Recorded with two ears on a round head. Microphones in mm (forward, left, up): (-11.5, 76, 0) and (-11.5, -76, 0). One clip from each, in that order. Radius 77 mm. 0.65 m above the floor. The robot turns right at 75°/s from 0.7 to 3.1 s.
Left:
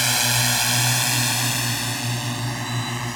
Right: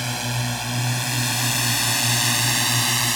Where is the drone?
50° left (ahead or behind); by 3.2 s 60° right (ahead or behind).